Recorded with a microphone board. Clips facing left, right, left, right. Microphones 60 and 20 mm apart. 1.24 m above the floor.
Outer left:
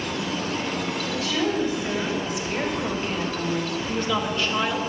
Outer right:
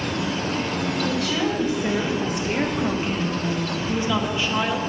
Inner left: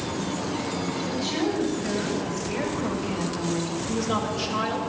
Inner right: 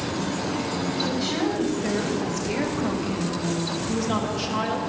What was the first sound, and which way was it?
A woman speaking, 70° right (ahead or behind).